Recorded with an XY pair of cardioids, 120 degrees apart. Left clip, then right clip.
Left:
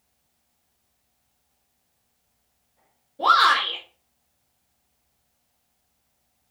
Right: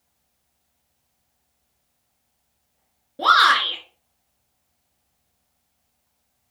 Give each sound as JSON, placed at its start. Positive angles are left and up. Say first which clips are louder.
{"t": 3.2, "sound": "a shout", "louder": "right 2 dB", "azimuth_deg": -65, "distance_m": 2.0}